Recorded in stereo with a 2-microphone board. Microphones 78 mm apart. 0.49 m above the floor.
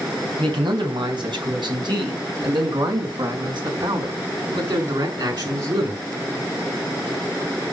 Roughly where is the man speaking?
Right.